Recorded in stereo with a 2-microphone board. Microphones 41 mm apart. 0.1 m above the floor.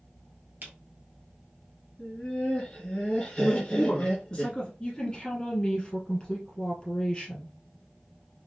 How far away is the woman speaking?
About 2 m.